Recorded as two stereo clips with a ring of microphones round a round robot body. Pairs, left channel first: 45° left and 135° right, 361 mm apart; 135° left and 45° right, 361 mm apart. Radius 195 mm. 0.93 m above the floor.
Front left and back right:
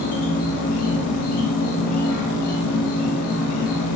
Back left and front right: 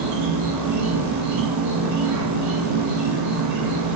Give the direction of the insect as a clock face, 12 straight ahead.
12 o'clock.